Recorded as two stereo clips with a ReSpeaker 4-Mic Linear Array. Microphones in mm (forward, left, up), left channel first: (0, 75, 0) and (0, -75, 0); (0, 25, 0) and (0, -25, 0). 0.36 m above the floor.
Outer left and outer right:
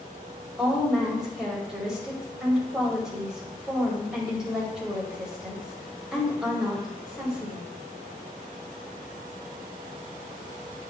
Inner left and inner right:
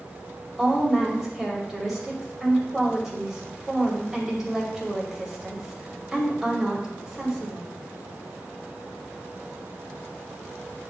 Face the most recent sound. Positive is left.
turn(degrees=-5)  # may be behind; listen again after turning